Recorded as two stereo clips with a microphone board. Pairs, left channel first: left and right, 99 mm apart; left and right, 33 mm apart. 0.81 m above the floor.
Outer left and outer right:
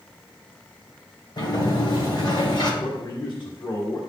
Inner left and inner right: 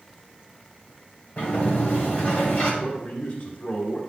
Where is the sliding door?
45° left (ahead or behind), 1.9 m.